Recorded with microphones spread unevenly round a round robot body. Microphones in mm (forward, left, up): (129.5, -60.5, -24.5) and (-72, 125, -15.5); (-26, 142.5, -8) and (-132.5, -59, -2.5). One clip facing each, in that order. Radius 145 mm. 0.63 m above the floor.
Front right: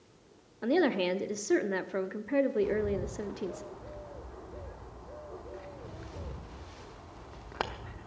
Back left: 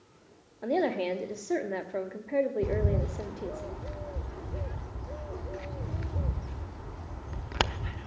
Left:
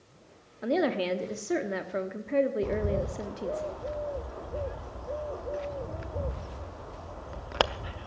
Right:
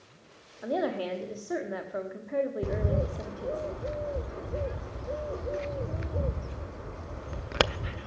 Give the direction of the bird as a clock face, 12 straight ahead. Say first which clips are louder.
Even, left 1 dB; 6 o'clock.